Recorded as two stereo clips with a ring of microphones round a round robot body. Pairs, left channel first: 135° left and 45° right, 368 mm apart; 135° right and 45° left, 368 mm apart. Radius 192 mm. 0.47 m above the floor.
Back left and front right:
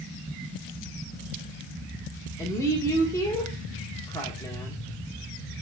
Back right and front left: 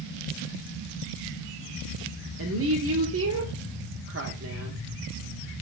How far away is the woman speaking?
About 1.2 m.